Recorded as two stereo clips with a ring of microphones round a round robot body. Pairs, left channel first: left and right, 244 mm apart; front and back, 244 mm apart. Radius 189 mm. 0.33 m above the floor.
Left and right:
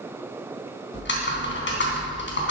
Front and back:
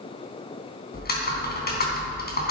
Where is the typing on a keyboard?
50° left, 3.5 m.